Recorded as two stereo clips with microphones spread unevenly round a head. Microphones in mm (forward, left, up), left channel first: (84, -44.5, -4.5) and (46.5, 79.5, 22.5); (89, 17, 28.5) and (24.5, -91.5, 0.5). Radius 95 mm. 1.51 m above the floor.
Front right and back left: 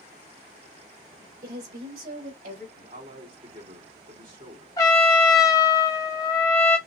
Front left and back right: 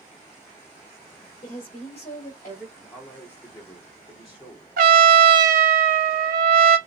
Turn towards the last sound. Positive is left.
turn(degrees=-145)